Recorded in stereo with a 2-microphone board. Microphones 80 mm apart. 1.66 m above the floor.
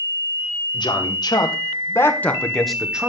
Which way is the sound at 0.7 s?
65° left (ahead or behind).